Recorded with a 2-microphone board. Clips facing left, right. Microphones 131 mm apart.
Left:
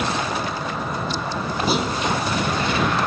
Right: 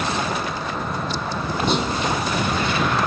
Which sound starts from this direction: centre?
A clunk, at 1.7 s.